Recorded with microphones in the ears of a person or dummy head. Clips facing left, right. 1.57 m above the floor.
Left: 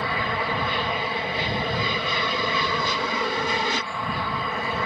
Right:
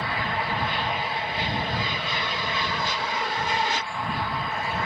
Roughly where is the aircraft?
Left.